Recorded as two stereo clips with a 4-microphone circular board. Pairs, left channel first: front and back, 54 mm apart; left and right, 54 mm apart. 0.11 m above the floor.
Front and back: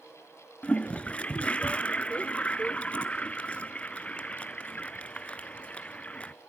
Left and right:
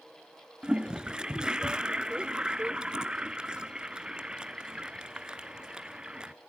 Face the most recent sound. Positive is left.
turn(degrees=-35)